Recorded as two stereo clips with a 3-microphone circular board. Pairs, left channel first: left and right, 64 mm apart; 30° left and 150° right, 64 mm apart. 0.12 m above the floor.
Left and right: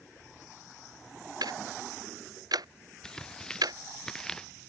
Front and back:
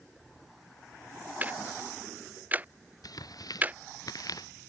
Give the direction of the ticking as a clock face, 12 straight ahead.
3 o'clock.